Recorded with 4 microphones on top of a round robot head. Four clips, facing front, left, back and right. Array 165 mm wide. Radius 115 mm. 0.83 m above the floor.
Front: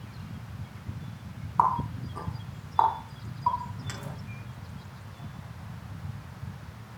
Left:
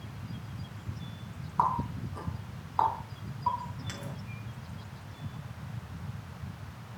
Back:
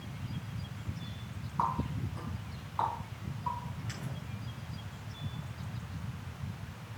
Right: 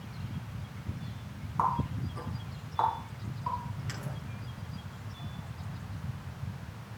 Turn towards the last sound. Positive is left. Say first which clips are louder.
# left 1 dB, front 8 dB
turn(degrees=20)